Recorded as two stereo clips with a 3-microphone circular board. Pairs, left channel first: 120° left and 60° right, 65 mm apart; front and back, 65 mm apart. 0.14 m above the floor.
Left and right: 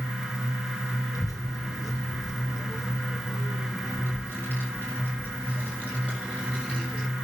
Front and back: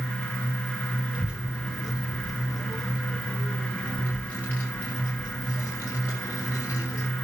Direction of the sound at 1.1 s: 110° left.